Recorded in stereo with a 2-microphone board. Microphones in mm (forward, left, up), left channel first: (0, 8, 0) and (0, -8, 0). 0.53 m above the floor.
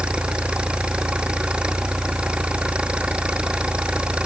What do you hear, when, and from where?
0.0 s an engine running: 80° right